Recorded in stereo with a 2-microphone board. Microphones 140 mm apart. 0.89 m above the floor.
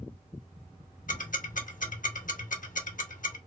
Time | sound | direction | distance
1.1 | ticking | 70° left (ahead or behind) | 0.9 m